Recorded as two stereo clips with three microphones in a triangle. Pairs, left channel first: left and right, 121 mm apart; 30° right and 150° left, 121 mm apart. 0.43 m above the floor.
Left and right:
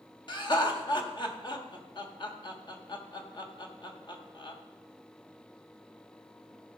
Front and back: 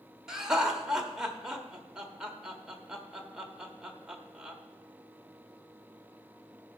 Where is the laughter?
65° left, 1.4 m.